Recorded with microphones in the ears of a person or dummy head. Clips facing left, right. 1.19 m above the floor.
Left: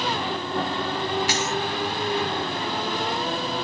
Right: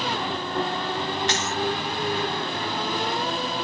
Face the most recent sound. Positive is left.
turn(degrees=5)  # may be behind; listen again after turning